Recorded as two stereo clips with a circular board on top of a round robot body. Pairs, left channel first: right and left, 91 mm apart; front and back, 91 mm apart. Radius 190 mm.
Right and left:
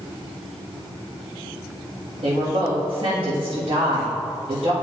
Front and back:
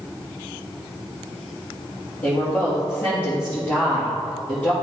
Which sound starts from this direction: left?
A woman speaking, at 2.2 s.